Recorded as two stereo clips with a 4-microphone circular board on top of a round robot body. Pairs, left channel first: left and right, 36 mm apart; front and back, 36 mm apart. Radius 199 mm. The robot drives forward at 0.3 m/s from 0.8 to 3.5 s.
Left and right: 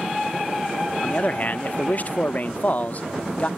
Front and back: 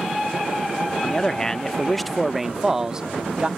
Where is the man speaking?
60° left; by 3.5 s 125° left.